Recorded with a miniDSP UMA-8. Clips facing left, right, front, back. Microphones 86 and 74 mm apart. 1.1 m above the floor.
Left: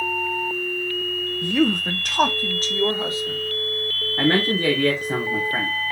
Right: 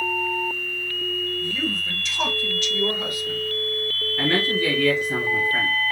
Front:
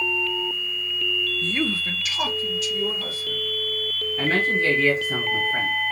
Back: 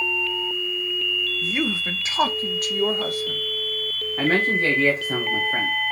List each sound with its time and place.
1.4 s a woman speaking: 95° left, 0.7 m; by 3.4 s 160° left, 1.2 m
4.2 s a man speaking: 135° left, 1.2 m